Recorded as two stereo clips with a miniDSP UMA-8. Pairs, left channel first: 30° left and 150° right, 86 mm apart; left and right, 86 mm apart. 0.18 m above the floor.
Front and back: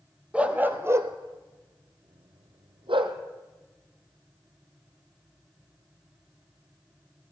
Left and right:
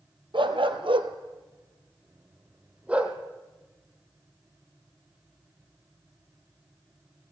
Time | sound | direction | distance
0.3 | a dog barking | 75° right | 1.7 m